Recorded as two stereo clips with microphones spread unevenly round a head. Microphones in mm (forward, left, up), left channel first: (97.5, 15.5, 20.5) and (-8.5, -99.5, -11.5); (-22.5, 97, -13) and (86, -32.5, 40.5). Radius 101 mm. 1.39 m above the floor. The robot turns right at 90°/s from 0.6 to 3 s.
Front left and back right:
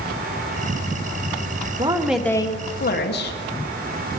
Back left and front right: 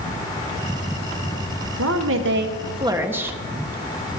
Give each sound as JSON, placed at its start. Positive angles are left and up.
{"t": 1.8, "sound": "a woman speaking", "azimuth_deg": -80, "distance_m": 1.1}